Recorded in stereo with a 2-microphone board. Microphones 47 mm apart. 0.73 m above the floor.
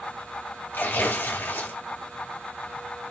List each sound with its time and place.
0.7 s tearing paper: 50° left (ahead or behind), 1.6 m